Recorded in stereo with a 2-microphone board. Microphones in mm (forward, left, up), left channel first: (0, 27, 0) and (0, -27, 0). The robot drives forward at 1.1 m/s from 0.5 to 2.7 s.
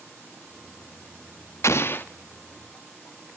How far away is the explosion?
About 0.8 m.